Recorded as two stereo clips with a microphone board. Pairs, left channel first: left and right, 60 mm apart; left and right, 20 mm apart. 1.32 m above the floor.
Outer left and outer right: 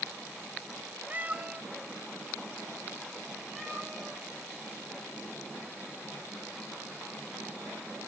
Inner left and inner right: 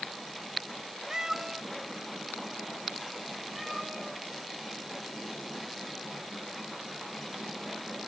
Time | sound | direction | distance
1.1 | a cat meowing | 30° right (ahead or behind) | 0.5 m